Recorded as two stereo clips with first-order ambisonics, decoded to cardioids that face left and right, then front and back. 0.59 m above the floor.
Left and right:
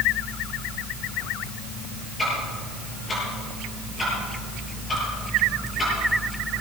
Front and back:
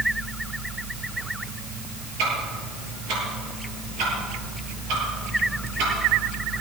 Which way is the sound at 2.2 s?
165° left.